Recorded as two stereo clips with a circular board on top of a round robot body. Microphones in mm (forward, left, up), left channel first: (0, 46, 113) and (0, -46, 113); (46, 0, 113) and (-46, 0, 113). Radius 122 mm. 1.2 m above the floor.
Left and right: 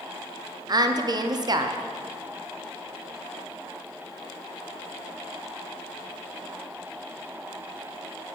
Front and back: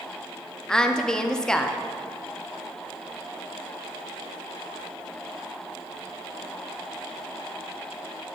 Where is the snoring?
No snoring in this recording.